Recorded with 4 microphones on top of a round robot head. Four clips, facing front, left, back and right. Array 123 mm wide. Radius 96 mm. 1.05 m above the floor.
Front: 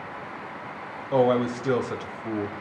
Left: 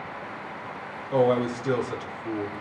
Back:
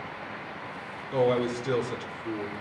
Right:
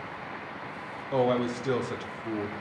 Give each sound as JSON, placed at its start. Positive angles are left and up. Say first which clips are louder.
{"t": 1.1, "sound": "a man speaking", "louder": "left 4 dB, front 4 dB", "azimuth_deg": -5, "distance_m": 2.0}